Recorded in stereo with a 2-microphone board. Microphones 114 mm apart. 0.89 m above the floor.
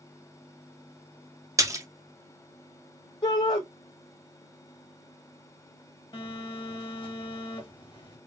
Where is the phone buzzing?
40° left (ahead or behind), 1.6 m.